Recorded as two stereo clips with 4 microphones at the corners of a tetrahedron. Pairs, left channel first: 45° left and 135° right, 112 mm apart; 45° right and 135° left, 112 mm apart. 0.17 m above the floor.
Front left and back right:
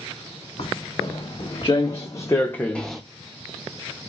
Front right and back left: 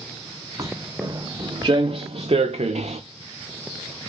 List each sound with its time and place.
0.6 s footsteps: 80° left, 1.5 m; by 3.0 s 135° left, 0.6 m